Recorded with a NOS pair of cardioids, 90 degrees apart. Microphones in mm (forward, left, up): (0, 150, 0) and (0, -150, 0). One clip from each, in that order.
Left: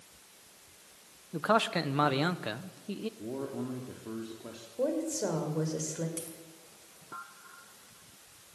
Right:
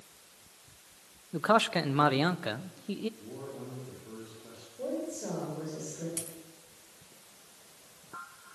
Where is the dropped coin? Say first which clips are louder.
Right 1 dB; 35° right, 4.5 m.